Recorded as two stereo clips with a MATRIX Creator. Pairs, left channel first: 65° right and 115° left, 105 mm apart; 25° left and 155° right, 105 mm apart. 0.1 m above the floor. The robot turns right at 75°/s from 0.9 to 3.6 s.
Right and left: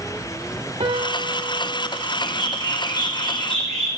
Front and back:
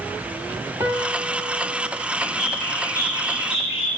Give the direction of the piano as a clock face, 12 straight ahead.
7 o'clock.